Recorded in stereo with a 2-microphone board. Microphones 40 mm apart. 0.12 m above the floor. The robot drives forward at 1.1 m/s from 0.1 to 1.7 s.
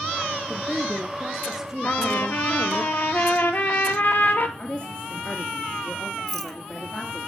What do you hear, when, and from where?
0.5 s a woman speaking: 20° right (ahead or behind), 2 m; by 2.8 s 10° right (ahead or behind), 3 m
1.8 s a trumpet: 45° left (ahead or behind), 2 m
4.6 s a woman speaking: 25° left (ahead or behind), 2 m
6.3 s a rattle: centre (ahead or behind), 1.2 m